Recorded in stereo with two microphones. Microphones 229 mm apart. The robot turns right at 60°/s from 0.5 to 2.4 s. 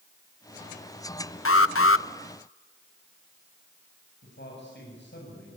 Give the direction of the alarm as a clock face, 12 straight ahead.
9 o'clock.